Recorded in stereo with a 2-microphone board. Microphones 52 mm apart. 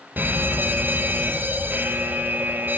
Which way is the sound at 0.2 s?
40° right (ahead or behind).